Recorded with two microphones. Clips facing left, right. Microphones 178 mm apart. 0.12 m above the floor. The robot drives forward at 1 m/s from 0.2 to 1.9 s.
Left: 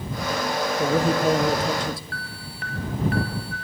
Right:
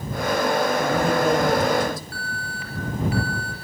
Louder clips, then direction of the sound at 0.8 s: Even; 35° left (ahead or behind).